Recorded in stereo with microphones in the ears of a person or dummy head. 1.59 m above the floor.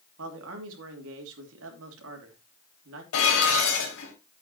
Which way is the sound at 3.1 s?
75° left (ahead or behind).